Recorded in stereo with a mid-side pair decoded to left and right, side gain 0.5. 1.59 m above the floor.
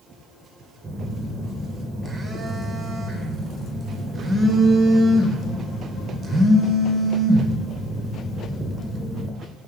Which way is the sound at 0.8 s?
40° right.